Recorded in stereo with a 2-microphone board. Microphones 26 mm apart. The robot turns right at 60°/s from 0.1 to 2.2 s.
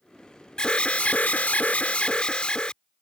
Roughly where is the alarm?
Ahead left.